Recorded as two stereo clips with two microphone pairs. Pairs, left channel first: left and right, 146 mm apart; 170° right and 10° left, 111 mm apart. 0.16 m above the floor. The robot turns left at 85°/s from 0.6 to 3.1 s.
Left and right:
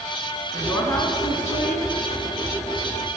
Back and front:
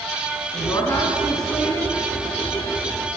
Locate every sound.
0.5 s a woman speaking: 170° left, 1.9 m; by 1.9 s 60° left, 1.9 m